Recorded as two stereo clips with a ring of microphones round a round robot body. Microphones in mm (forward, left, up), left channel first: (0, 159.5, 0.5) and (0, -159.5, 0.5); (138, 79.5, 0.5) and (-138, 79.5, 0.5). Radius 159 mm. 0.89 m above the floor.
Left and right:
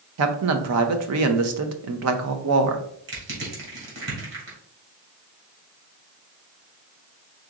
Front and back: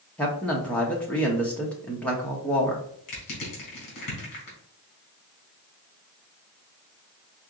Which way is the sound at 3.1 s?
35° right.